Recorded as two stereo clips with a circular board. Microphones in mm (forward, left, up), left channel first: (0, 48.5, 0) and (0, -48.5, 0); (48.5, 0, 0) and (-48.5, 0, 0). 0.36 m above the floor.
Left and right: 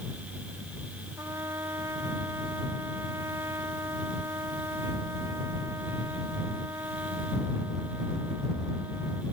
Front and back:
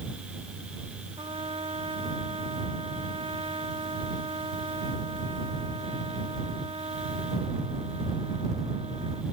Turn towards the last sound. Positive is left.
turn(degrees=-150)